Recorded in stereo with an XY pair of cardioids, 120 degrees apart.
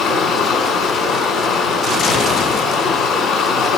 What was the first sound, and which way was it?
Running water, 65° left.